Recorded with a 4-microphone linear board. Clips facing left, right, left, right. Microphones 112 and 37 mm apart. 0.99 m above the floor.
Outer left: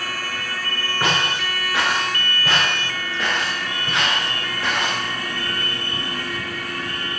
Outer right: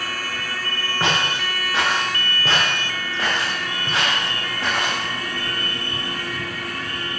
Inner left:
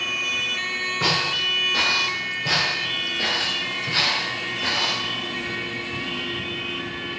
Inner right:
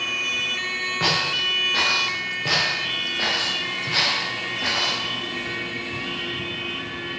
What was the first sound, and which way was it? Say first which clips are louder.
Footsteps: even, even; 25° right (ahead or behind).